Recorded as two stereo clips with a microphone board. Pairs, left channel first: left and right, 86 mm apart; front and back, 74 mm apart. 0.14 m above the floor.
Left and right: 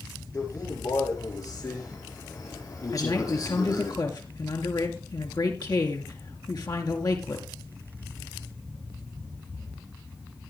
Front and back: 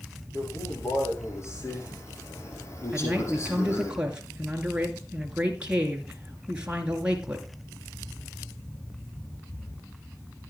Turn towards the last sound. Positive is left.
turn(degrees=105)